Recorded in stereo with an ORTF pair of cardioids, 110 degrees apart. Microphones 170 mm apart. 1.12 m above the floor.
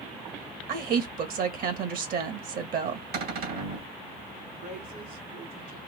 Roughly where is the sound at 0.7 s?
Ahead right.